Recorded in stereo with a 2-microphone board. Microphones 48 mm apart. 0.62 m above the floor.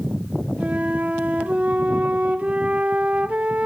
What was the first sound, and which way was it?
A flute, 30° right (ahead or behind).